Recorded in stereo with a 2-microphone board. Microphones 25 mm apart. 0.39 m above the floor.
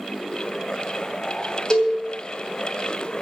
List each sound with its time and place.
1.7 s a cowbell: 25° left (ahead or behind), 3 m